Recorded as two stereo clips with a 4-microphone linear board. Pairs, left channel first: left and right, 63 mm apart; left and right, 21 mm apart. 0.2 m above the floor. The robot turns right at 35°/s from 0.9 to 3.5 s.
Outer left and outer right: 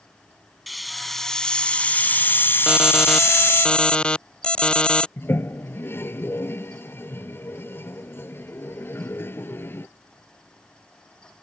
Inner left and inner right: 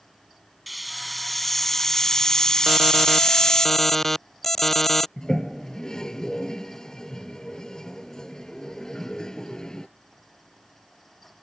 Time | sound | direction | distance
0.7 | a hiss | straight ahead | ?
2.7 | an alarm | 15° right (ahead or behind) | ?
5.2 | a toilet flushing | 40° left (ahead or behind) | ?